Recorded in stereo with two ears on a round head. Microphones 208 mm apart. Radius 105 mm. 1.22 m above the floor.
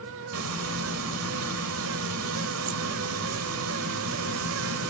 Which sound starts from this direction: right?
Frying, at 0.3 s.